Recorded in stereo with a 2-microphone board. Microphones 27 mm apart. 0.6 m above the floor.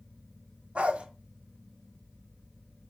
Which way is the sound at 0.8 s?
60° right (ahead or behind).